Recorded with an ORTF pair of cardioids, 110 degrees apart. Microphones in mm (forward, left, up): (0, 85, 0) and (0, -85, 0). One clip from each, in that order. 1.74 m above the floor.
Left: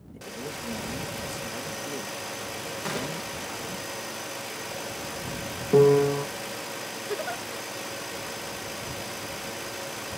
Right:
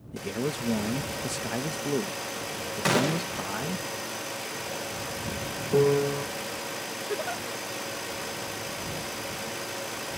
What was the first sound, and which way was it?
A man speaking, 55° right.